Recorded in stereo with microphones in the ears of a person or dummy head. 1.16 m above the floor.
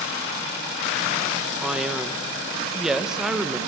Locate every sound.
1.6 s a man speaking: 5° right (ahead or behind), 1.0 m